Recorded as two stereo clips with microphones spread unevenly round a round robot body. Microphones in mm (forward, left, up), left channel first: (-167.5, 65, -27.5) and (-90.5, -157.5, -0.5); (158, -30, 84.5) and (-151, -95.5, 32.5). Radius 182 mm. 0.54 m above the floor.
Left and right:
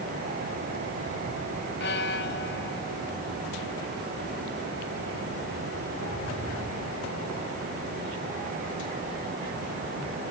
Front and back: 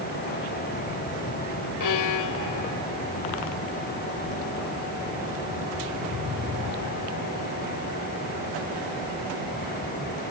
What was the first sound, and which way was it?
A violin, 55° left.